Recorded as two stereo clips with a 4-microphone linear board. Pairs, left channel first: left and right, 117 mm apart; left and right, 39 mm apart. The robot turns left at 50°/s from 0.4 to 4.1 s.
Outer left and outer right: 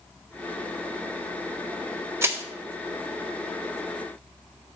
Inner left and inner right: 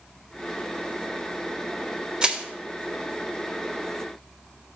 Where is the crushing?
20° right (ahead or behind), 1.1 m; by 2.4 s 15° right (ahead or behind), 1.1 m.